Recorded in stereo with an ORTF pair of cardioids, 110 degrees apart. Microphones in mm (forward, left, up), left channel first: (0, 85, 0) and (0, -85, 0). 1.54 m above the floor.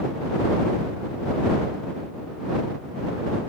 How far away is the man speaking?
I don't hear a man speaking.